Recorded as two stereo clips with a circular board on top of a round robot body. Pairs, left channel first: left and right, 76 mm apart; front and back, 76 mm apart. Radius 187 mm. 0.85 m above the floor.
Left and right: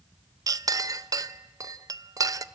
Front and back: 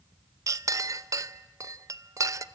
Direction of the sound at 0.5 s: 130° right.